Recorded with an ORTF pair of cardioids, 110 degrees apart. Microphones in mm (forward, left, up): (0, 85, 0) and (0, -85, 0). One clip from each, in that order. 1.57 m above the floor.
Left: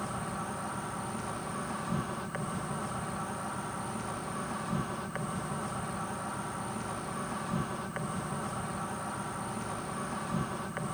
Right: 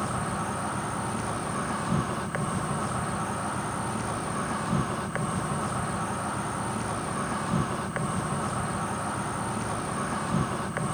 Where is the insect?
40° right.